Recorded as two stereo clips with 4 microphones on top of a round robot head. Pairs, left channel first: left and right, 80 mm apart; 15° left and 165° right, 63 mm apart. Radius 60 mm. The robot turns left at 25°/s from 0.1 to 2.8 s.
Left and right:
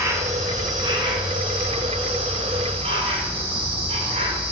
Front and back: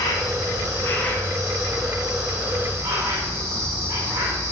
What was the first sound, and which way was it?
An insect, 35° right.